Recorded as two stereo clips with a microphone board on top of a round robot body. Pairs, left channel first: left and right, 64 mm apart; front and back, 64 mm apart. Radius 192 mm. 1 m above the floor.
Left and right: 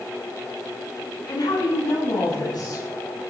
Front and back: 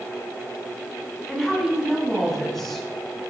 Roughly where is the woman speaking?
Left.